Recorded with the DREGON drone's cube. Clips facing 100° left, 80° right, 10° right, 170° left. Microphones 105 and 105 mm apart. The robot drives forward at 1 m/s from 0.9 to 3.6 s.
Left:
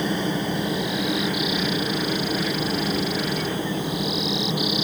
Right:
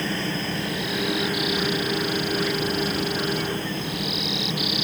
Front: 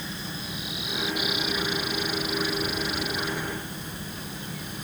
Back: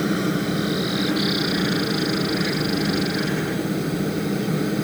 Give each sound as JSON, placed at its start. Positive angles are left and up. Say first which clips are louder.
{"t": 0.0, "sound": "a helicopter", "louder": "left 3 dB, back 15 dB", "azimuth_deg": 175}